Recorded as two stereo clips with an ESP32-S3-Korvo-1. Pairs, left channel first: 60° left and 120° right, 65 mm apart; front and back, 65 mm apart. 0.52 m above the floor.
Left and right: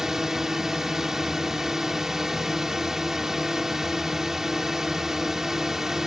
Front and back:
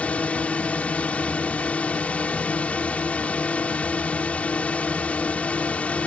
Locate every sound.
0.0 s a drone: 45° right